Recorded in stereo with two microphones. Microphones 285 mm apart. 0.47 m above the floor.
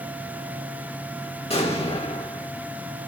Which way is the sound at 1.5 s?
20° left (ahead or behind).